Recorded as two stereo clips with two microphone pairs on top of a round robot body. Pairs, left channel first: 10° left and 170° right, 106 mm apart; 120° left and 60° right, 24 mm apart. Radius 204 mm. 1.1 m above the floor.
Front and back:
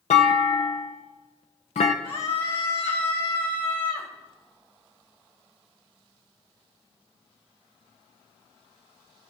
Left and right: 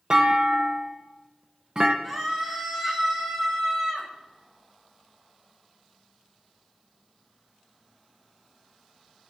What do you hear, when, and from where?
0.1 s a clunk: 5° right, 0.5 m
2.0 s a scream: 30° left, 6 m